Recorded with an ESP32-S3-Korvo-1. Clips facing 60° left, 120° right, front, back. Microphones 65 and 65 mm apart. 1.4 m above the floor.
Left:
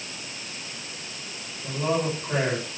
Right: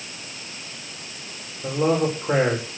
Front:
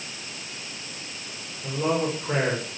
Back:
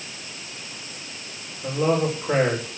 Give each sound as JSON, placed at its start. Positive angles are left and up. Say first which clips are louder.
{"t": 1.6, "sound": "a man speaking", "louder": "right 5 dB, back 3 dB", "azimuth_deg": -105, "distance_m": 6.0}